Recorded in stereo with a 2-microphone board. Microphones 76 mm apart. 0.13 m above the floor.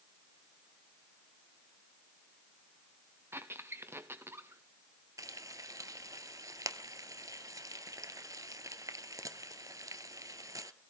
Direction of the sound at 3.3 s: 30° right (ahead or behind).